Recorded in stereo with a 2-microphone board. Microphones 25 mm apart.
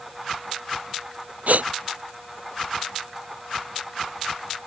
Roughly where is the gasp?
Right.